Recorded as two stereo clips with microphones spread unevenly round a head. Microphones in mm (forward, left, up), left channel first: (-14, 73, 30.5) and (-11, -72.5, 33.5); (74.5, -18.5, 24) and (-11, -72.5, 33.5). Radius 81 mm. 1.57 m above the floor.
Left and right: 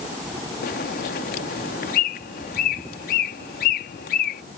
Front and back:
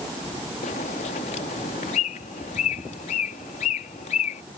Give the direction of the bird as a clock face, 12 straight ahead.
10 o'clock.